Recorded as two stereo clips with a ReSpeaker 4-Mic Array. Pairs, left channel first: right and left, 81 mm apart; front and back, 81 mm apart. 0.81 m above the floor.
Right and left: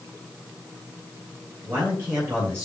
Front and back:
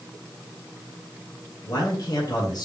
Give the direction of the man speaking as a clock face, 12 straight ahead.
11 o'clock.